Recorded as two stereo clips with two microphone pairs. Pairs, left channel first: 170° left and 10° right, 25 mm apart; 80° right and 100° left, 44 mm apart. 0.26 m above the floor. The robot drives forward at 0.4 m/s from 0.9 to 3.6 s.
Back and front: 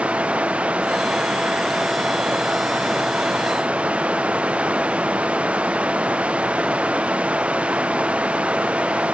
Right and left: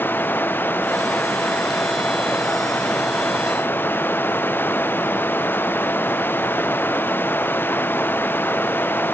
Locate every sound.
0.0 s running water: 35° right; by 9.1 s 40° right